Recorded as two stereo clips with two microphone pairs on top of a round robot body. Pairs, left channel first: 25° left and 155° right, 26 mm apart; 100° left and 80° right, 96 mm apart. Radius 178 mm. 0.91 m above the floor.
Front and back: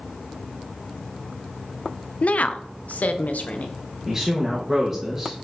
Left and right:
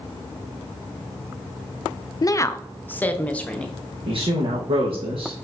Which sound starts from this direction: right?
A woman speaking, at 4.1 s.